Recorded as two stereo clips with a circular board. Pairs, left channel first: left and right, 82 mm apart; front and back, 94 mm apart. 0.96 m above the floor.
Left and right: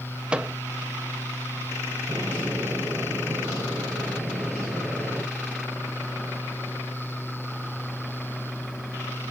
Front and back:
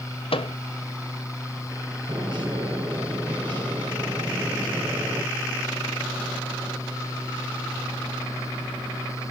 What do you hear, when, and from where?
0.3 s a microwave: 10° right, 0.5 m
2.1 s a bird: 145° right, 4 m